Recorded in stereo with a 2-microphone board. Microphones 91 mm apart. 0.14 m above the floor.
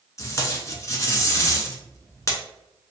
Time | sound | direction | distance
0.2 | tape being pulled | 35° left (ahead or behind) | 0.6 m